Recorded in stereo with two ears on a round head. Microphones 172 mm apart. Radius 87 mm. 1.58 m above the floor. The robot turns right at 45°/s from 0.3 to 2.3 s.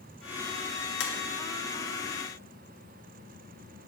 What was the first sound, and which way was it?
Tapping, 65° left (ahead or behind).